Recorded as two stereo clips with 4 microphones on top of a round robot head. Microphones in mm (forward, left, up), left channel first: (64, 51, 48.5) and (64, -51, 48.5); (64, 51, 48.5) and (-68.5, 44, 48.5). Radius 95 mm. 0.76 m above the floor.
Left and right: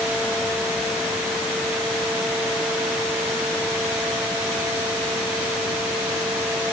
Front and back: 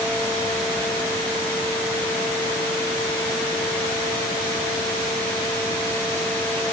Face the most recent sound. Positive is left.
No sound to turn to.